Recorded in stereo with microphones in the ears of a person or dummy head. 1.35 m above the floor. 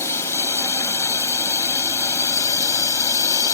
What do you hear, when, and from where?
0.0 s a drone: 15° left (ahead or behind); by 3.5 s 20° left (ahead or behind)